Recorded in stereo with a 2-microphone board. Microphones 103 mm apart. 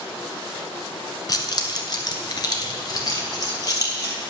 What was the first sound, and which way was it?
Keys jangling, 40° left (ahead or behind).